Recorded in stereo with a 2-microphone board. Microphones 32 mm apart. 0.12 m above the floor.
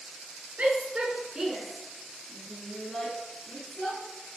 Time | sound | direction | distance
0.6 | a shout | 45° right (ahead or behind) | 2 m